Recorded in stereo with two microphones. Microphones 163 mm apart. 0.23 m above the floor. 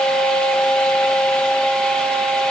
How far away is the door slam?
No door slam in this recording.